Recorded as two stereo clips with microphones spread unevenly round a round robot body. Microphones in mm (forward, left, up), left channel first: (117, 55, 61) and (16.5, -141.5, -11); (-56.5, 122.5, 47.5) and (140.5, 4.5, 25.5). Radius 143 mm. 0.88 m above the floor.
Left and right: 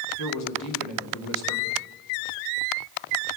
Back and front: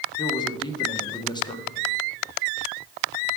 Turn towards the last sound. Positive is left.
turn(degrees=75)